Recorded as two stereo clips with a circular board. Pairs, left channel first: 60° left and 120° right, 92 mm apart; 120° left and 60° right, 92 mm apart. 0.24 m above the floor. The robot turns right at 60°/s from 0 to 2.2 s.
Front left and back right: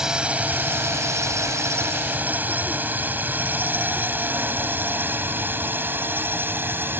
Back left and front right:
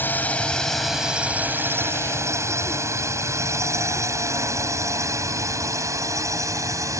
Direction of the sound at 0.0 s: 160° left.